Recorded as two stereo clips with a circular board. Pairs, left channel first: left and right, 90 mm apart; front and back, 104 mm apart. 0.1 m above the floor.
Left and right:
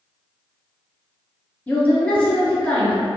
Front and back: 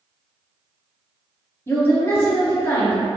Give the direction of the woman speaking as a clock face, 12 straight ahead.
11 o'clock.